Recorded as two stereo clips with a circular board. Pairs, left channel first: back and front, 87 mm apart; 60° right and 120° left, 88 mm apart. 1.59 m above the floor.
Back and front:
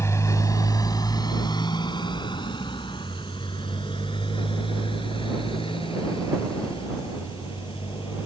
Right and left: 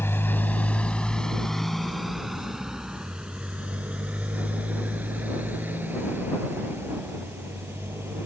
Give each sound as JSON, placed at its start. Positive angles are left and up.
{"t": 0.0, "sound": "a motorcycle", "azimuth_deg": -120}